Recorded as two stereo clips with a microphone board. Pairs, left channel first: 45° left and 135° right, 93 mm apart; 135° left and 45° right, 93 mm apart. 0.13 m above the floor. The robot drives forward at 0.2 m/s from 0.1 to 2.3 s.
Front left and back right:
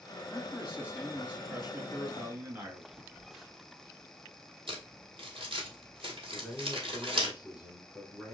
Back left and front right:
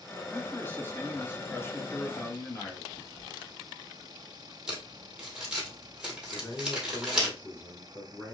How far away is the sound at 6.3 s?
About 1.6 m.